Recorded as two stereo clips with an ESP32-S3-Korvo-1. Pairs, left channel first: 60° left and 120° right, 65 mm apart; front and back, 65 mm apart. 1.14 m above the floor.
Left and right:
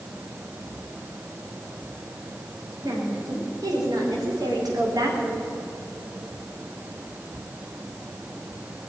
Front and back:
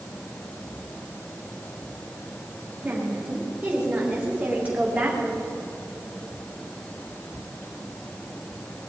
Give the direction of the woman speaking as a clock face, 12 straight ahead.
4 o'clock.